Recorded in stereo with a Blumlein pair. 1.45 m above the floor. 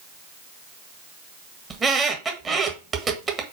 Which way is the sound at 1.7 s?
20° right.